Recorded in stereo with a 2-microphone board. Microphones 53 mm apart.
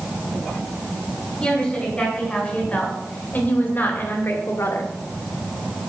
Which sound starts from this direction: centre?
A woman speaking, at 1.4 s.